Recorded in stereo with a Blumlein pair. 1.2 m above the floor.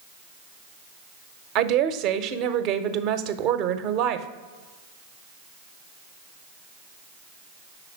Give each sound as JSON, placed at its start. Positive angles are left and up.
{"t": 1.6, "sound": "a woman speaking", "azimuth_deg": -40, "distance_m": 0.7}